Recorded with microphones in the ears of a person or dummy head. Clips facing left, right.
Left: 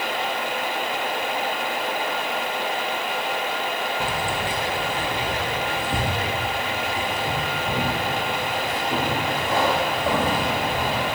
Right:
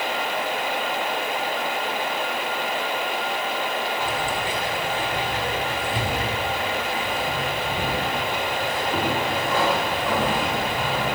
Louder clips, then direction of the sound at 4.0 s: Even; 25° left (ahead or behind).